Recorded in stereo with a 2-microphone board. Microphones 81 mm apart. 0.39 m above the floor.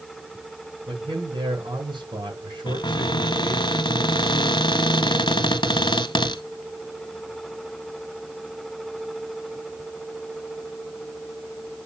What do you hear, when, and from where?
0.9 s a man speaking: 75° right (ahead or behind), 5.5 m
2.7 s a cupboard door: 80° left, 1.0 m